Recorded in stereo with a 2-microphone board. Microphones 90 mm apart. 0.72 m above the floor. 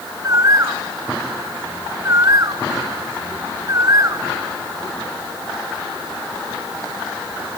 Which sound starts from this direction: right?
A bird, at 0.2 s.